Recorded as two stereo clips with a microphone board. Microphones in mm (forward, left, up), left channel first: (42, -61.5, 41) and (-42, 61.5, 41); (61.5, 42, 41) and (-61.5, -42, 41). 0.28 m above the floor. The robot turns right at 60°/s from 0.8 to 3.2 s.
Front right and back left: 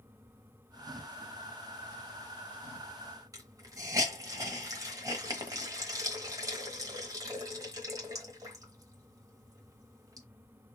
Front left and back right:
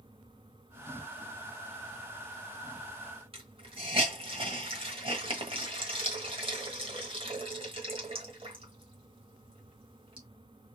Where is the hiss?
175° right, 1.2 m.